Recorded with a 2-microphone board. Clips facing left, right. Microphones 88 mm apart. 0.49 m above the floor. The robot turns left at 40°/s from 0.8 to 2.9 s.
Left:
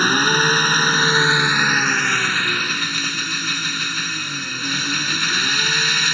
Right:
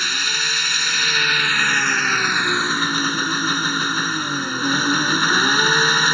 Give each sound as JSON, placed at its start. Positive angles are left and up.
{"t": 0.0, "sound": "an engine running", "azimuth_deg": 45}